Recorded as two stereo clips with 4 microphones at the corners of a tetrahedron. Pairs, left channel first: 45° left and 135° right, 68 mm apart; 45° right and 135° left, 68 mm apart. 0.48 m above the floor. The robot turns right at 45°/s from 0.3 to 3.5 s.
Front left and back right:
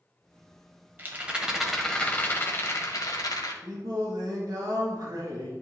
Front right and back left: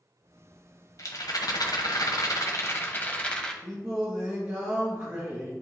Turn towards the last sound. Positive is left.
turn(degrees=-165)